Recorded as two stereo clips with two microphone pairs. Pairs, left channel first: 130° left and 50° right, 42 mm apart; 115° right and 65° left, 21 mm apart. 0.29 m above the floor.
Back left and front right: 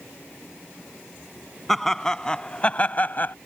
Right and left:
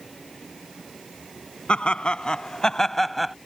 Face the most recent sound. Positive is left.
turn(degrees=145)